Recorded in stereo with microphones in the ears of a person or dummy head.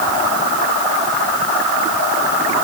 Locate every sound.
Only background noise.